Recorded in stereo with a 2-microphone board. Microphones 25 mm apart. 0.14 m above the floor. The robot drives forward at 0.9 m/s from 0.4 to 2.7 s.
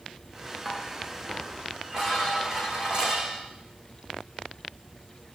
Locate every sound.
0.7 s dishes clattering: 30° right (ahead or behind), 8 m; by 3.4 s 35° right (ahead or behind), 6.5 m